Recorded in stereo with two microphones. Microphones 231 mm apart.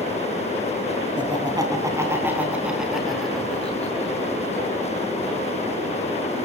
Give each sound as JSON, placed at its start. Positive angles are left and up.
{"t": 1.2, "sound": "laughter", "side_deg": -20, "distance_m": 4.0}